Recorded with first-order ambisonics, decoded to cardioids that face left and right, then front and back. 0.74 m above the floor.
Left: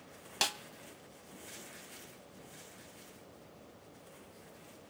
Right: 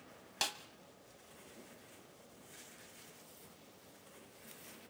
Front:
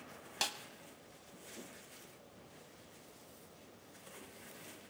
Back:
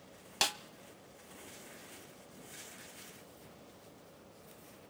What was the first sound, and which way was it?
A snare drum, 145° left.